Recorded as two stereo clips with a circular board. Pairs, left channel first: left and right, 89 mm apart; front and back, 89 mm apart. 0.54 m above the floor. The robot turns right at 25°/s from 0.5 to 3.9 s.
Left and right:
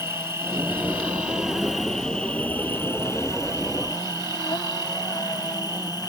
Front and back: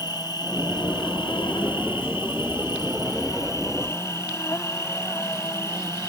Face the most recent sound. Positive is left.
turn(degrees=55)